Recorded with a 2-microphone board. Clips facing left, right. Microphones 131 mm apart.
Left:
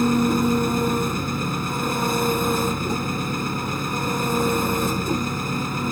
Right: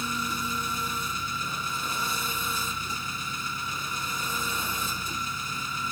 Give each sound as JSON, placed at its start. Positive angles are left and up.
{"t": 0.0, "sound": "an engine running", "side_deg": 70}